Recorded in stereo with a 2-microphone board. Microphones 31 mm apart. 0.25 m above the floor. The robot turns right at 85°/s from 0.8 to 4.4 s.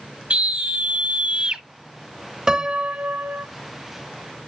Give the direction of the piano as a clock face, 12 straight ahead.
5 o'clock.